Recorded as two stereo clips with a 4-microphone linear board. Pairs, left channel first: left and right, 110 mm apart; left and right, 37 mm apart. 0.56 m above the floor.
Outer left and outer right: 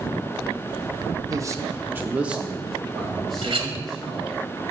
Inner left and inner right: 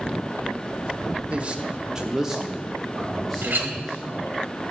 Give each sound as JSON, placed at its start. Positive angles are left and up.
{"t": 1.3, "sound": "a man speaking", "side_deg": -35, "distance_m": 0.7}
{"t": 3.4, "sound": "a clink", "side_deg": -55, "distance_m": 1.1}